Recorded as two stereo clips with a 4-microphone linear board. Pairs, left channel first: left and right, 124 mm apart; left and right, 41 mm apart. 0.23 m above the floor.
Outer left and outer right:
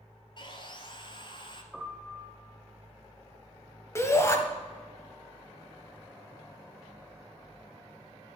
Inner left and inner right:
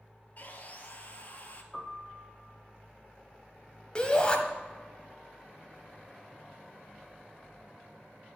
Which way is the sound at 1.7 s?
Centre (ahead or behind).